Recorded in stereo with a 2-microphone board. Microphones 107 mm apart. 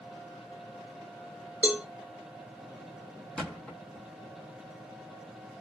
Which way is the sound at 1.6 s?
10° right (ahead or behind).